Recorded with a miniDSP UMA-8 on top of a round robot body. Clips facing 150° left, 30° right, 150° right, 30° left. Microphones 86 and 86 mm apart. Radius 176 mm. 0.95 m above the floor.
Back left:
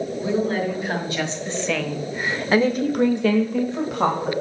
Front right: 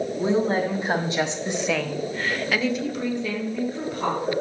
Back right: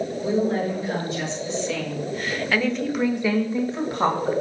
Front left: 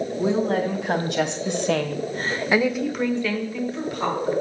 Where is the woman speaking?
25° left, 3 m; by 4.3 s 160° left, 2.5 m.